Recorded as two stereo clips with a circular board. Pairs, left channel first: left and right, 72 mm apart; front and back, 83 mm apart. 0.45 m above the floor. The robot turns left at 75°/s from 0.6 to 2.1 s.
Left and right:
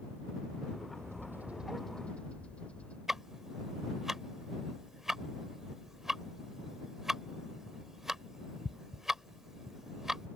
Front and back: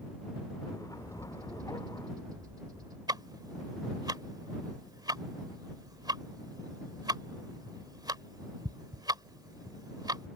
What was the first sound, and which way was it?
A bird, 115° right.